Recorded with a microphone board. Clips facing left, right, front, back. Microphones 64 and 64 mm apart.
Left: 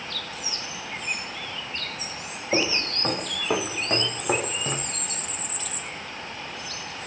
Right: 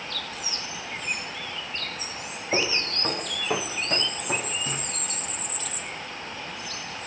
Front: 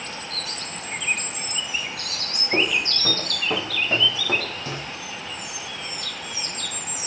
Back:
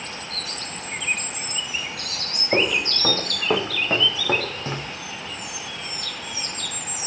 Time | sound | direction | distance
2.5 | footsteps | straight behind | 2.5 m